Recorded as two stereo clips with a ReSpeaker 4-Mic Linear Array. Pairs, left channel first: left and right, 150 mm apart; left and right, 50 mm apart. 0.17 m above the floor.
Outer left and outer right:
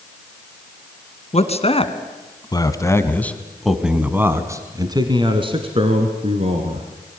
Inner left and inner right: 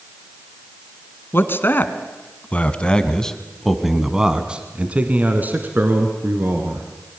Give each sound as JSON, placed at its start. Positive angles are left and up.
{"t": 1.3, "sound": "a man speaking", "side_deg": 45, "distance_m": 2.5}